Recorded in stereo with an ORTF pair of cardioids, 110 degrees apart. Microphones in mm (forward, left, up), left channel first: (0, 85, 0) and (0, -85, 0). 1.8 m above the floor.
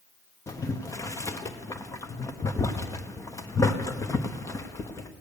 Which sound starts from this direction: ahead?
Boiling, at 0.5 s.